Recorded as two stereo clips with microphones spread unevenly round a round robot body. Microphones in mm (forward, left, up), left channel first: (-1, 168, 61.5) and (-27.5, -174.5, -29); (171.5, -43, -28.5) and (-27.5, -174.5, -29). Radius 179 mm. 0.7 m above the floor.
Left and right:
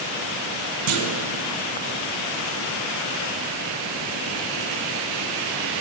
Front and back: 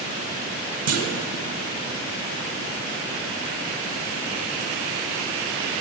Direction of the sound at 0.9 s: 135° right.